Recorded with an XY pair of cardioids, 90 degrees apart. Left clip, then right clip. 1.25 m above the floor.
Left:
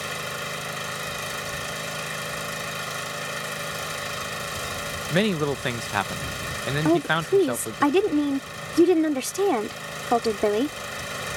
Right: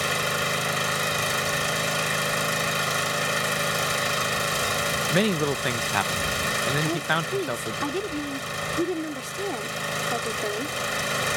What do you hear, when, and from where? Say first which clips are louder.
0.0 s an engine running: right 6 dB; 45° right
5.1 s a man speaking: left 4 dB; 5° left
6.8 s a woman speaking: left 3 dB; 70° left